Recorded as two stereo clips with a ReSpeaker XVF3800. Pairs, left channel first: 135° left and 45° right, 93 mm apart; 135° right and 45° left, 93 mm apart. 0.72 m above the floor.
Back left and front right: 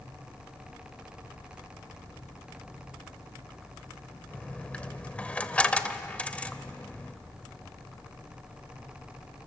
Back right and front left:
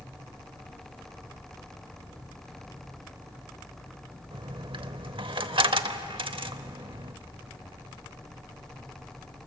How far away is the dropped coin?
About 0.9 m.